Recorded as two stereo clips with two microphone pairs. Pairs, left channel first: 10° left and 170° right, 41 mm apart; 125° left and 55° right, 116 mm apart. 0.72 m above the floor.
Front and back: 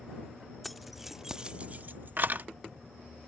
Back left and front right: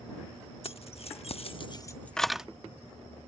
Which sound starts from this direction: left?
Keys jangling, at 0.6 s.